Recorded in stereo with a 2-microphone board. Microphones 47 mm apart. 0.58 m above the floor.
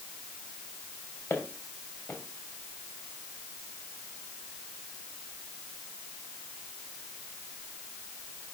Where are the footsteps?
50° left (ahead or behind), 4 m.